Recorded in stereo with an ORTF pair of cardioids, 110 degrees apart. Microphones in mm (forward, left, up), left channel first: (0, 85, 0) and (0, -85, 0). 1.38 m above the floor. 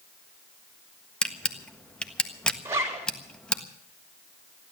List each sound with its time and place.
1.2 s a camera shutter: 5° left, 1.4 m
2.6 s a zipper: 15° right, 4 m